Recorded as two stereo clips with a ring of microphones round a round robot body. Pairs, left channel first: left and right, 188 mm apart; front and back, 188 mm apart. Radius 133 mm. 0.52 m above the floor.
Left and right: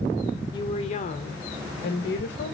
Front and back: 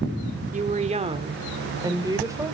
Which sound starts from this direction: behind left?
A woman speaking, at 0.5 s.